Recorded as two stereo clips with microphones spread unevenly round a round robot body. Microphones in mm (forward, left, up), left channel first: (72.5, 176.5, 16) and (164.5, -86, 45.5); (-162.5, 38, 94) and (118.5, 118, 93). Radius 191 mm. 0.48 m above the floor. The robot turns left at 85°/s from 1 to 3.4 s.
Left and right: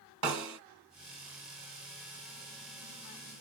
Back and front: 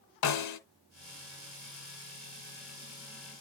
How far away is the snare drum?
About 0.9 m.